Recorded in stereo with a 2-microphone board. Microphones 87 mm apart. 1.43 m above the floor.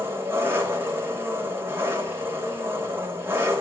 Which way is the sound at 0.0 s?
25° right (ahead or behind).